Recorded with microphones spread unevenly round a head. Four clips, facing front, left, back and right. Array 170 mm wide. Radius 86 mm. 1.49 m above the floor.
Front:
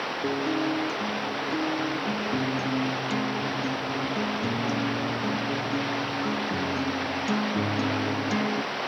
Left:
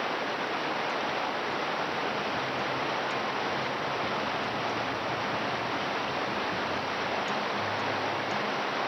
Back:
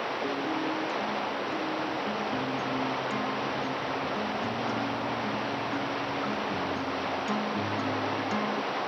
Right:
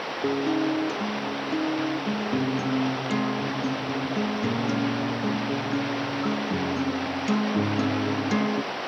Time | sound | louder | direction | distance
0.2 | a guitar | right 7 dB, front 6 dB | 75° right | ?